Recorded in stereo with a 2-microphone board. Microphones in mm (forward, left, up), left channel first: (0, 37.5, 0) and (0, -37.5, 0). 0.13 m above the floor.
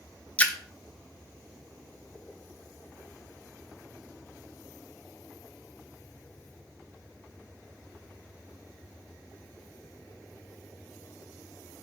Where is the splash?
20° left (ahead or behind), 0.6 m.